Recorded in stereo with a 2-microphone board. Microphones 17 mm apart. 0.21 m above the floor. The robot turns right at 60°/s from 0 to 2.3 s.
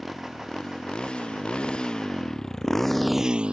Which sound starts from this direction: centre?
A motorcycle, at 0.0 s.